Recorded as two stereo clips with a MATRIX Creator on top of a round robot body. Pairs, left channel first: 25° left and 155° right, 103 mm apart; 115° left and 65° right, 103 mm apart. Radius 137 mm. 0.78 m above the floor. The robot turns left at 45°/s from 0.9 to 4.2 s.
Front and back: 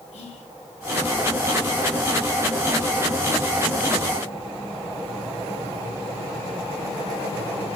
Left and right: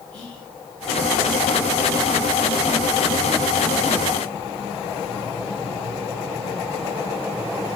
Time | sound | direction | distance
0.1 | whispering | 30° left | 4 m